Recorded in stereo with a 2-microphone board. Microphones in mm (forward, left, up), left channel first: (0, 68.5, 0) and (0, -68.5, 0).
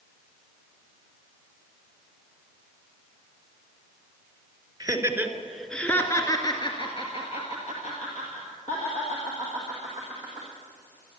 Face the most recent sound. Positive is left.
turn(degrees=70)  # may be behind; listen again after turning